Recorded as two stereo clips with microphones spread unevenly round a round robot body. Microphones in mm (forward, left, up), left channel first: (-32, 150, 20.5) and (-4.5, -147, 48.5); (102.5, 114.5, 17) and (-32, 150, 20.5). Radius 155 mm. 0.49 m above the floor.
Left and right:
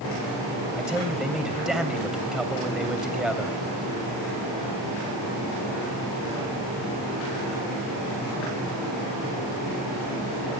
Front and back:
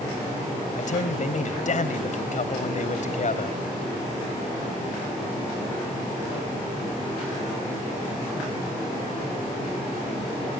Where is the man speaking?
5° left, 2.5 m.